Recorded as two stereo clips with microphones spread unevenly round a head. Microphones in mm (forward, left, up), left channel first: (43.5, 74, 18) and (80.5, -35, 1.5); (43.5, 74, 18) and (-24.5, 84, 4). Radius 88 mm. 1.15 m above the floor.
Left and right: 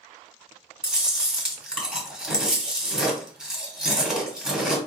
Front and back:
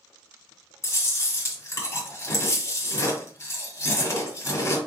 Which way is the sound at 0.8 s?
15° left.